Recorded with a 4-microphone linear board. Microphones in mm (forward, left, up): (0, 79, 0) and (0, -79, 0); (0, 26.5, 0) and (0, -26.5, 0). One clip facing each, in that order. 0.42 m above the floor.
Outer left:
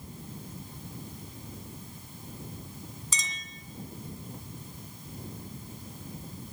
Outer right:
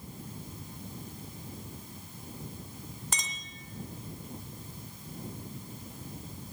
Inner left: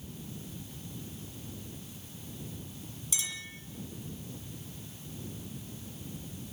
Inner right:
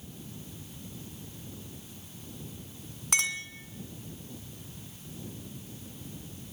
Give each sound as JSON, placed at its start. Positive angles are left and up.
{"t": 3.1, "sound": "a clink", "side_deg": -60, "distance_m": 2.0}